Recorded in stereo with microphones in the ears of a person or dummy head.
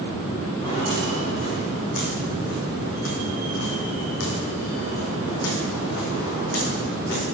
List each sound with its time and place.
0.6 s footsteps: 25° left (ahead or behind), 4 m; by 7.2 s 60° left (ahead or behind), 5 m